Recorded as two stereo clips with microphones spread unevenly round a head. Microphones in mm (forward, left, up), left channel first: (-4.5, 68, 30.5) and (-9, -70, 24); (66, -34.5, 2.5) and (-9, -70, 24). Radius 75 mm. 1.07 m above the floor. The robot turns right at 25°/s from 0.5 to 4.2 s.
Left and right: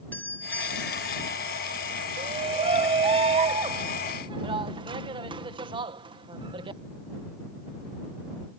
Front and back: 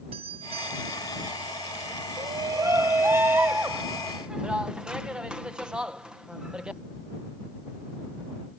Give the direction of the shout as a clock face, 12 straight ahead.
4 o'clock.